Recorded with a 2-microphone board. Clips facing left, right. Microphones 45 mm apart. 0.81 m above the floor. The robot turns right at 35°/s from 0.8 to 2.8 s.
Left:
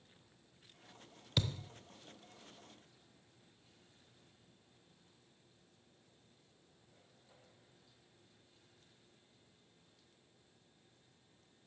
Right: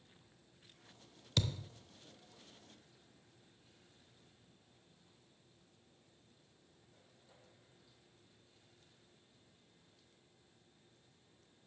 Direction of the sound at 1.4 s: 10° left (ahead or behind).